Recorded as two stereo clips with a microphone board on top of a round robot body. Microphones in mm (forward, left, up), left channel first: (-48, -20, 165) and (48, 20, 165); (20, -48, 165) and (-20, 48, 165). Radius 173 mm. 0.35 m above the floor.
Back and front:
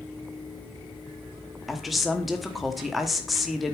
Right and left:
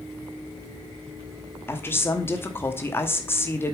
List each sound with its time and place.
1.7 s a woman speaking: 65° right, 1.5 m